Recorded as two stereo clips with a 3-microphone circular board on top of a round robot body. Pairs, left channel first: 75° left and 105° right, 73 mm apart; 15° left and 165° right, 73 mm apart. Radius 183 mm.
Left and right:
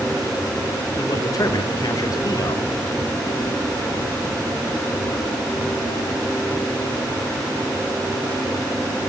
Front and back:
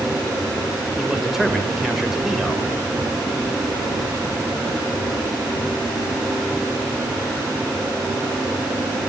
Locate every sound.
1.0 s a man speaking: 110° left, 3 m